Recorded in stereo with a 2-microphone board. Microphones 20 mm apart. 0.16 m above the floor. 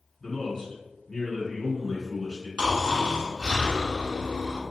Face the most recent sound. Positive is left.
turn(degrees=-40)  # may be behind; listen again after turning